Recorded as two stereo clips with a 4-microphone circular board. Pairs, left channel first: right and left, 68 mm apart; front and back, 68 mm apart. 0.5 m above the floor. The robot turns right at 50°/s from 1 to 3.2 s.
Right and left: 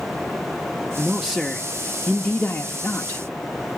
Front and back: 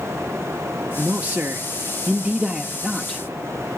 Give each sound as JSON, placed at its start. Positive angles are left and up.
{"t": 1.0, "sound": "a man speaking", "azimuth_deg": 155, "distance_m": 0.8}